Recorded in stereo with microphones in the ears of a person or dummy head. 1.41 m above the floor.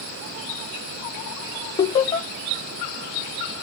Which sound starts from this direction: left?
Laughter, at 1.8 s.